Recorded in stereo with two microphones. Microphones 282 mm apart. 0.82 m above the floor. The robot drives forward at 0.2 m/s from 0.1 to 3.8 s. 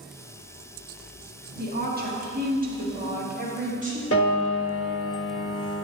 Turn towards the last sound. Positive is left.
turn(degrees=55)  # may be behind; listen again after turning